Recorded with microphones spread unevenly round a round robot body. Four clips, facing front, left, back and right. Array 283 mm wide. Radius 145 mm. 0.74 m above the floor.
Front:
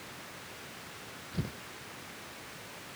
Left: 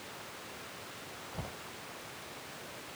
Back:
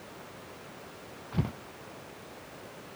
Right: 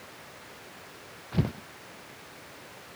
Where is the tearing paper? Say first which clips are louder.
Right 15 dB, back 6 dB; 105° right.